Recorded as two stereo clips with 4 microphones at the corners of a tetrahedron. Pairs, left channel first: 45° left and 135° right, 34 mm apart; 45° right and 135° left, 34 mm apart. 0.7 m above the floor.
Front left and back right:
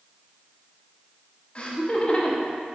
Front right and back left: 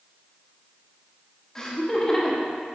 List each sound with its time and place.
1.6 s laughter: 20° left, 1.0 m